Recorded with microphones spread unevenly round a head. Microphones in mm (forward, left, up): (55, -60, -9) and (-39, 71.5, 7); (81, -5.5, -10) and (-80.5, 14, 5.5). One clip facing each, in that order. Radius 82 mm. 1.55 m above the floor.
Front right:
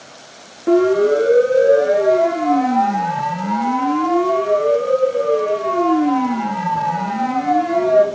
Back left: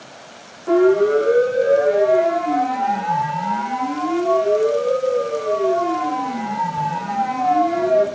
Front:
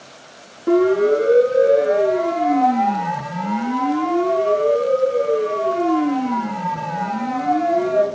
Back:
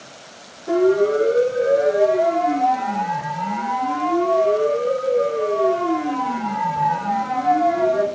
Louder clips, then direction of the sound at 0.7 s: Front right 1 dB, front 2 dB; 15° right.